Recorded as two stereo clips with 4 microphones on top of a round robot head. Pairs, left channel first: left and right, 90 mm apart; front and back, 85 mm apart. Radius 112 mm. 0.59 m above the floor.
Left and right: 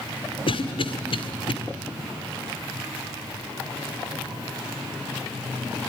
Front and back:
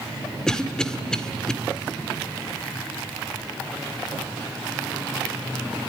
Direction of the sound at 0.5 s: 80° left.